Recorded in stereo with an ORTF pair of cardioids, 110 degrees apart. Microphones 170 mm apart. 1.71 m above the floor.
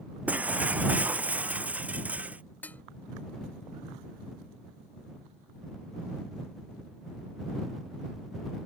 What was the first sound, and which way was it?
Breaking glass, 10° right.